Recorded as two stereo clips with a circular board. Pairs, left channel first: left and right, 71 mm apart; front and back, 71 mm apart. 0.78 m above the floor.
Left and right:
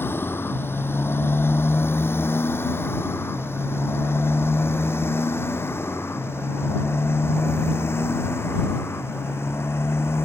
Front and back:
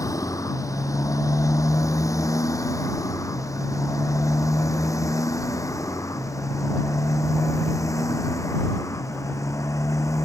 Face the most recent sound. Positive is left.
turn(degrees=40)